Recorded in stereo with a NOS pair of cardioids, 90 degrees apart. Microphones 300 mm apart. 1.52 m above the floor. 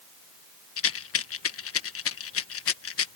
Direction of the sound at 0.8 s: 50° left.